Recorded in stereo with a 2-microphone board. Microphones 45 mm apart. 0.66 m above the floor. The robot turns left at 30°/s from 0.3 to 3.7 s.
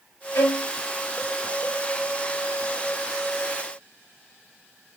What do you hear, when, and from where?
0.3 s a violin: 75° left (ahead or behind), 1.7 m; by 0.7 s 80° left, 1.7 m